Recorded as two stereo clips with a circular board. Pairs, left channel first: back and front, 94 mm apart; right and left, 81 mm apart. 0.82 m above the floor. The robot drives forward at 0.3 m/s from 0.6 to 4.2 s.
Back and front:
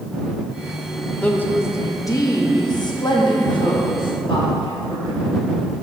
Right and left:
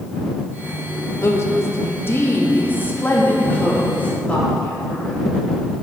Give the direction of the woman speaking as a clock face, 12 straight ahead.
4 o'clock.